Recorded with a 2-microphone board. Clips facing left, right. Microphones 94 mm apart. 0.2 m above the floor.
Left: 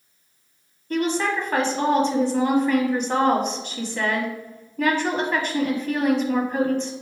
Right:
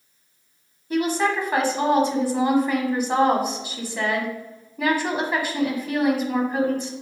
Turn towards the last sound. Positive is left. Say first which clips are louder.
# right 1 dB
turn(degrees=-10)  # may be behind; listen again after turning